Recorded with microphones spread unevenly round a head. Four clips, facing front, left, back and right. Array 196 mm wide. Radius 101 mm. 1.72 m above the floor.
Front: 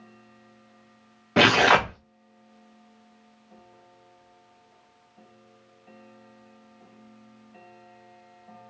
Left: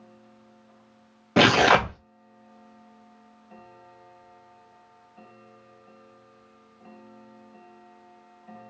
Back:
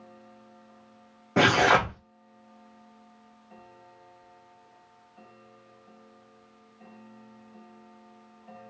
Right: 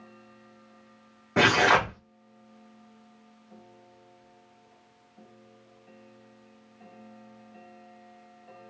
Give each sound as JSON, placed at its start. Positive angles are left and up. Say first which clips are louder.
{"t": 1.4, "sound": "tearing paper", "louder": "left 3 dB, front 2 dB", "azimuth_deg": 75, "distance_m": 0.6}